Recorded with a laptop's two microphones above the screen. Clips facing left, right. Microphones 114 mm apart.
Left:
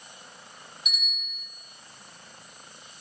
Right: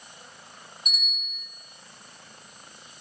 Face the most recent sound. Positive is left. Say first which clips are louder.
# right 1 dB
turn(degrees=-45)  # may be behind; listen again after turning